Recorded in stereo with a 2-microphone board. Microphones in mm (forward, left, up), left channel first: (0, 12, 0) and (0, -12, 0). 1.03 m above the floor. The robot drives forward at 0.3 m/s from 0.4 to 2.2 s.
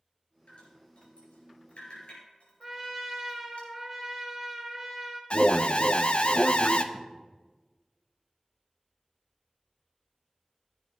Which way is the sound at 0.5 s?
75° left (ahead or behind).